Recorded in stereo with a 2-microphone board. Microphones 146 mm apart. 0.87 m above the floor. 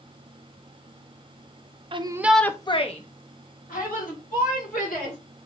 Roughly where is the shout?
Right.